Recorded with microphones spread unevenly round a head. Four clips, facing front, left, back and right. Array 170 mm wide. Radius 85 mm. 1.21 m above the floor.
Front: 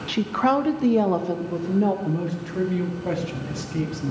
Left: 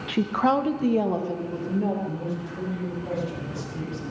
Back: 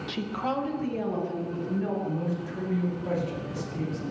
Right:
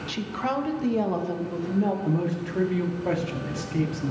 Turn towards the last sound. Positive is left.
turn(degrees=-55)